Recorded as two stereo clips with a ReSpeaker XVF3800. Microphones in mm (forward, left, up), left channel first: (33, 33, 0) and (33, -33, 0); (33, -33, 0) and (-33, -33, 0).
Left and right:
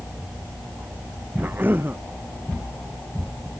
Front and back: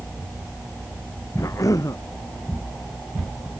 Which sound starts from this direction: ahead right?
A cough, at 1.4 s.